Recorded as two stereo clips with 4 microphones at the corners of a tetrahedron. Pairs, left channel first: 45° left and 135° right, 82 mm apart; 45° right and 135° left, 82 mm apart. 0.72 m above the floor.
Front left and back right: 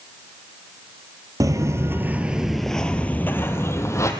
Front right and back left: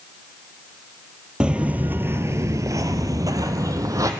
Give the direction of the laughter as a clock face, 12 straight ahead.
I don't hear laughter.